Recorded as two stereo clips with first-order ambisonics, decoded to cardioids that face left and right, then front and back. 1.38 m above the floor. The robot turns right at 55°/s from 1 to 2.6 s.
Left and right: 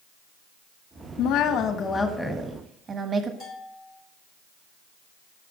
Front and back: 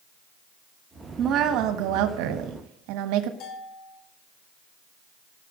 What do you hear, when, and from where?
1.2 s a woman speaking: 120° left, 1.5 m; by 3.3 s 160° right, 1.5 m
3.4 s a bell: 25° left, 6 m